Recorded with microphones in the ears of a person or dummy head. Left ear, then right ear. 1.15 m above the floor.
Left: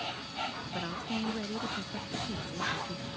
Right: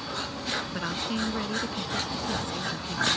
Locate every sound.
0.7 s a woman speaking: 25° right (ahead or behind)